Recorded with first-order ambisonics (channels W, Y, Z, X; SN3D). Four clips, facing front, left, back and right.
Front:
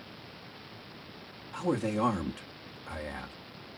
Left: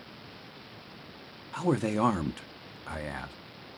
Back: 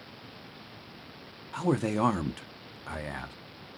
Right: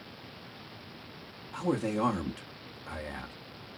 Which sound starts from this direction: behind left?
A man speaking, at 1.5 s.